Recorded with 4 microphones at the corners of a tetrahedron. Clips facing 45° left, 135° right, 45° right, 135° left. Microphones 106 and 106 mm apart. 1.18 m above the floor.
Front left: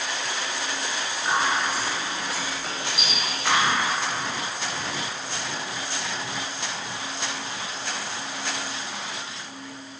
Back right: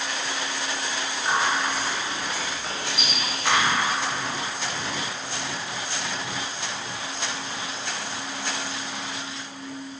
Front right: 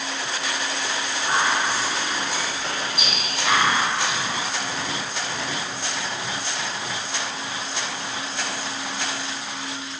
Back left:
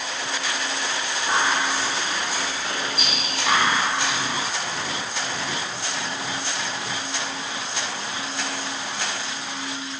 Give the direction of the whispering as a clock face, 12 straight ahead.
1 o'clock.